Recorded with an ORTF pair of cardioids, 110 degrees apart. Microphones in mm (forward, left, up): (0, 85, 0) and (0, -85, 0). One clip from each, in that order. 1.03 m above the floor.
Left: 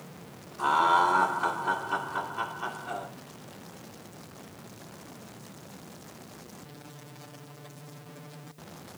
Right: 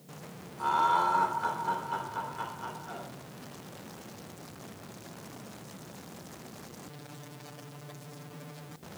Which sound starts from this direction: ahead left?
Laughter, at 0.6 s.